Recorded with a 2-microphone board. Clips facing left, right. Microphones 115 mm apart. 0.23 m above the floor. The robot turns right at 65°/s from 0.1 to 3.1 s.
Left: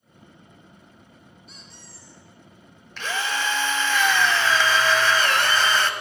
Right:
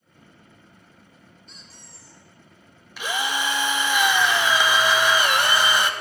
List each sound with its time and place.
1.5 s a squeak: 170° left, 1.8 m; by 2.2 s 140° right, 1.8 m
3.0 s a drill: 10° right (ahead or behind), 0.5 m